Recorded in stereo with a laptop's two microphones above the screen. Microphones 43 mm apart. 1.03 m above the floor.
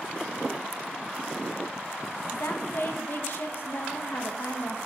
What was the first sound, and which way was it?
A woman speaking, 55° left (ahead or behind).